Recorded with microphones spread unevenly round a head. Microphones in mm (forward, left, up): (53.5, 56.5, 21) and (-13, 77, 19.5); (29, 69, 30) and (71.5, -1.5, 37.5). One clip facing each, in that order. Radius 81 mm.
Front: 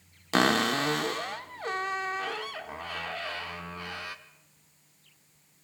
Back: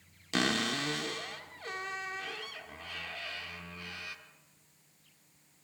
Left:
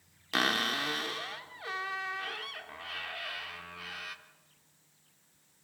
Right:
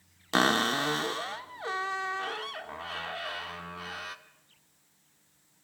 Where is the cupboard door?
30° right, 0.7 m.